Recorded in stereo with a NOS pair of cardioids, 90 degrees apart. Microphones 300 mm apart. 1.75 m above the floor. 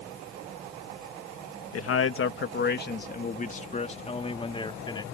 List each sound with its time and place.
1.7 s a man speaking: 55° left; by 5.0 s 15° left